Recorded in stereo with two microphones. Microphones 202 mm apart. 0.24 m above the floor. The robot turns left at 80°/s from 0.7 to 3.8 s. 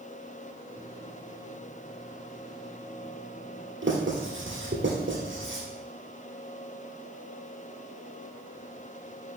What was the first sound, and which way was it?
Writing, 75° right (ahead or behind).